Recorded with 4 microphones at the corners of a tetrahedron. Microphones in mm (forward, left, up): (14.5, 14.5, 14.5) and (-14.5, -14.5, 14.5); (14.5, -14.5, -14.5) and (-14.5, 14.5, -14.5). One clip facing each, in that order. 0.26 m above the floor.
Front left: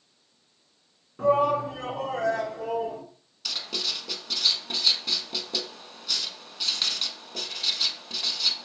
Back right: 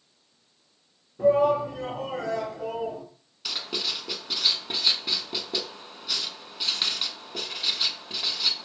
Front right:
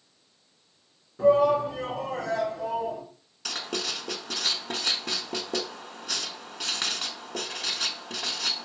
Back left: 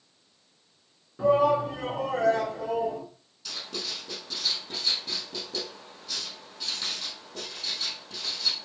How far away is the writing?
About 0.6 m.